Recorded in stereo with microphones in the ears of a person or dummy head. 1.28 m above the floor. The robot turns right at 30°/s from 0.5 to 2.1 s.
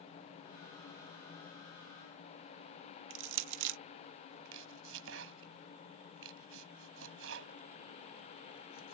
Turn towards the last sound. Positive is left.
turn(degrees=-70)  # may be behind; listen again after turning